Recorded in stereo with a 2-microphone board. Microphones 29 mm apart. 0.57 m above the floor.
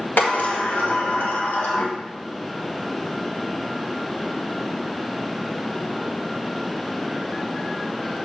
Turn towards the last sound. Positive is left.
turn(degrees=75)  # may be behind; listen again after turning